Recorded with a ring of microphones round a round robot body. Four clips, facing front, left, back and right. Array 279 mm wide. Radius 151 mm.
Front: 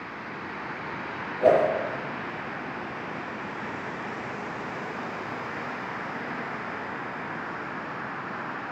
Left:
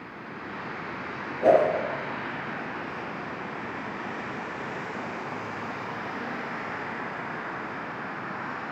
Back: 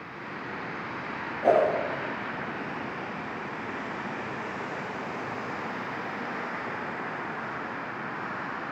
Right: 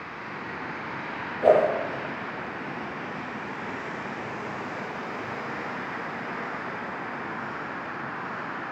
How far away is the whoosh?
About 7.5 m.